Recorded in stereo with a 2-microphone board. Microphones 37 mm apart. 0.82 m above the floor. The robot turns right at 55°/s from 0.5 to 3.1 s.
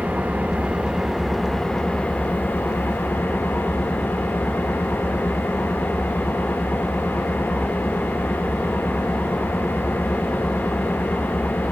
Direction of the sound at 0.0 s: 45° right.